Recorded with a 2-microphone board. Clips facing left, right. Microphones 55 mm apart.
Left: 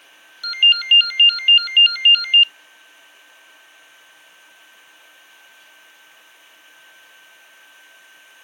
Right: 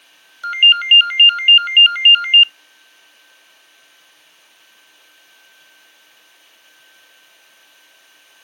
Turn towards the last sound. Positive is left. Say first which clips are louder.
# right 3 dB
turn(degrees=-40)  # may be behind; listen again after turning